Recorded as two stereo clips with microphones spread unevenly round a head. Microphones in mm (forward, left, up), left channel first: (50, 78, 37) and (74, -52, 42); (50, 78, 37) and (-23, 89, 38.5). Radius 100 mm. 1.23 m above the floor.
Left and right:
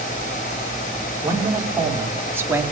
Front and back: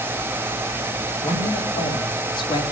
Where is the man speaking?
10° right, 3.5 m; by 2.6 s 5° right, 2.5 m.